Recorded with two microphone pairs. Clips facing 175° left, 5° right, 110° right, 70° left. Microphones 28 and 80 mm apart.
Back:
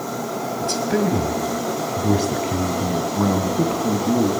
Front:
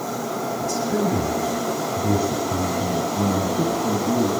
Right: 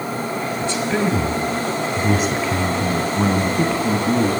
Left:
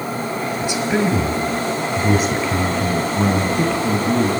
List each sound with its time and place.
0.6 s a man speaking: 150° left, 3 m; by 4.3 s 175° left, 4 m